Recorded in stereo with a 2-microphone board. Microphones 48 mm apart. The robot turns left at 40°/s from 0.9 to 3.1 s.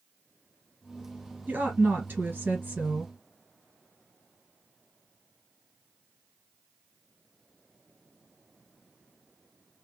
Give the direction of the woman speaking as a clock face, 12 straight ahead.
2 o'clock.